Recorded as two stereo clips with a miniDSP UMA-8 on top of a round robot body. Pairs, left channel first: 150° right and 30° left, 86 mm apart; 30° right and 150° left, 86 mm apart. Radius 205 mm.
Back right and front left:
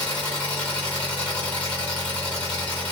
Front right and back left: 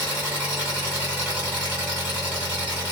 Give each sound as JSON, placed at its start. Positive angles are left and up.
{"t": 0.0, "sound": "an engine running", "azimuth_deg": -145, "distance_m": 1.3}